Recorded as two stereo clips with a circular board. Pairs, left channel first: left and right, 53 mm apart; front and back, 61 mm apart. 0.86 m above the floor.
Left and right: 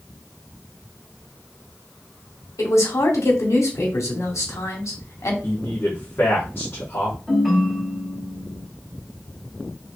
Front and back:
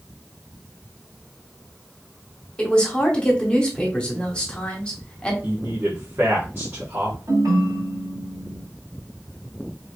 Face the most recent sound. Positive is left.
turn(degrees=-175)